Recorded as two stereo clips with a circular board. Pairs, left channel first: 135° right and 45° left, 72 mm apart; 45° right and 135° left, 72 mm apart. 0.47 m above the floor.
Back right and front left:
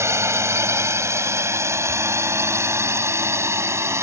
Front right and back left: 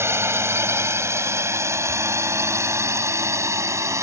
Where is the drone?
85° left; by 4.0 s 90° left.